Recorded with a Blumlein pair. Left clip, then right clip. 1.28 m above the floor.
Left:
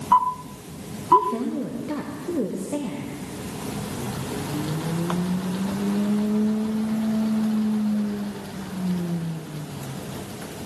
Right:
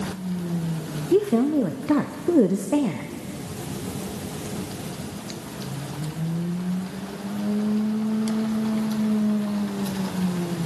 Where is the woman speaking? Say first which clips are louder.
Left 2 dB; 25° right, 0.6 m.